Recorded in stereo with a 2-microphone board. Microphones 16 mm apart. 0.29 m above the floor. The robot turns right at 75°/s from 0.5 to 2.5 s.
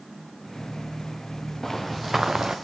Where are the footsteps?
155° left, 1.1 m; by 2.6 s 140° right, 1.1 m.